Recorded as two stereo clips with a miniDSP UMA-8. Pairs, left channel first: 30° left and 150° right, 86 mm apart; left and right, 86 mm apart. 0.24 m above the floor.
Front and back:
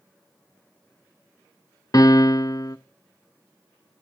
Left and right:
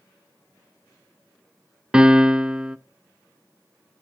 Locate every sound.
1.9 s a piano: 10° right, 0.6 m